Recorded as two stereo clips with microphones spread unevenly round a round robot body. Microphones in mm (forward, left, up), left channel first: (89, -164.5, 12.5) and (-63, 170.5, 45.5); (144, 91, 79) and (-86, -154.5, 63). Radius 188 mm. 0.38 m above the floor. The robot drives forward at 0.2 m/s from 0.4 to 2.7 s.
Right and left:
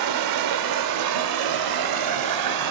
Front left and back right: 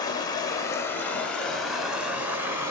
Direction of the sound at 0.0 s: 125° left.